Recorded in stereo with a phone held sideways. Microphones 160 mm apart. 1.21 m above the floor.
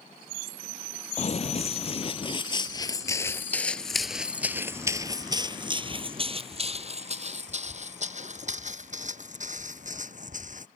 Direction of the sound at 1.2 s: 45° left (ahead or behind).